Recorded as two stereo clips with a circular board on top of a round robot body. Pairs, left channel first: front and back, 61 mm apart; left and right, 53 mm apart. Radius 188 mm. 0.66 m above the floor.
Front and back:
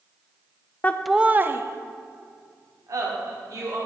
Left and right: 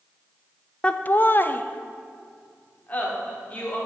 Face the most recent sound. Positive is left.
turn(degrees=150)